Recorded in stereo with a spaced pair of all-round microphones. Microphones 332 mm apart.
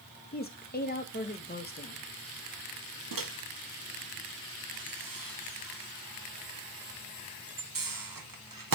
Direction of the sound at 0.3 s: 25° left (ahead or behind).